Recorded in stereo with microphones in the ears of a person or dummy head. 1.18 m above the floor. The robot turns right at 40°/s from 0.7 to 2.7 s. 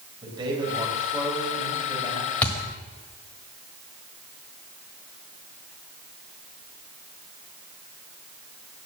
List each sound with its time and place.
0.2 s a man speaking: 20° right, 3 m; by 2.3 s 45° left, 3 m
2.4 s a thud: 10° left (ahead or behind), 1.4 m; by 2.5 s 15° left (ahead or behind), 1.4 m